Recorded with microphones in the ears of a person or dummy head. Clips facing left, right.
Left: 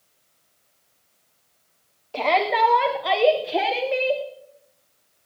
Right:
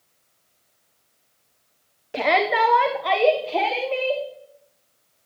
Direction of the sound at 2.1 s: 30° right (ahead or behind).